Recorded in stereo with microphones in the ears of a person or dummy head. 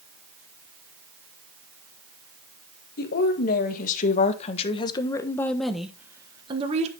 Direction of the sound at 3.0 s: 55° left (ahead or behind).